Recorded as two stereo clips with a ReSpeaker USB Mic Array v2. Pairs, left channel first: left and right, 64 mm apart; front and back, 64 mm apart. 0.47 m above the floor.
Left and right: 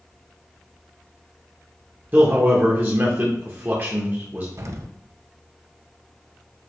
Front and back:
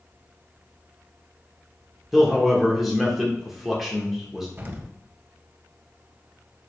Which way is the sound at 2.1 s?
95° right.